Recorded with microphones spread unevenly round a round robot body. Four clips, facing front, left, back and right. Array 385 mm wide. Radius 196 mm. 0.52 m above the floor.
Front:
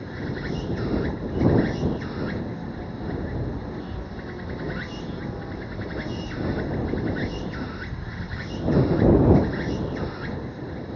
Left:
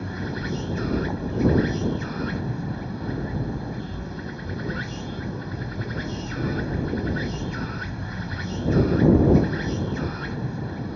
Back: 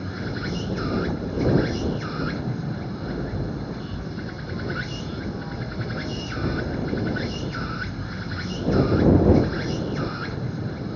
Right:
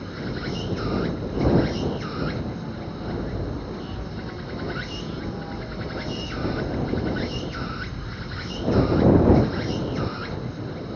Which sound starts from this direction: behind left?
An insect, at 0.0 s.